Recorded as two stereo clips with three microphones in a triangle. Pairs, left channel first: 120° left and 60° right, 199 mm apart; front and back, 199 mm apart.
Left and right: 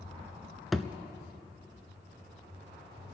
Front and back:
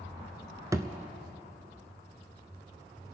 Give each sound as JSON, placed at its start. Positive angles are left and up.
{"t": 0.7, "sound": "a thud", "azimuth_deg": -150, "distance_m": 0.7}